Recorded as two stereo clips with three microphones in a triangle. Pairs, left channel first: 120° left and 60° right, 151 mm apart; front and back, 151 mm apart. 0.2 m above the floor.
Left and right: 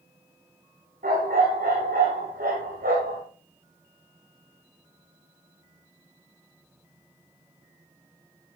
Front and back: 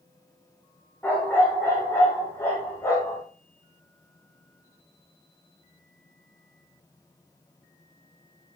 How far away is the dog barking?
About 6.5 m.